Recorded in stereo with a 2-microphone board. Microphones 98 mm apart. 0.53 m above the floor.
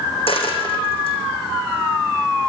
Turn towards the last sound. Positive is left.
turn(degrees=70)  # may be behind; listen again after turning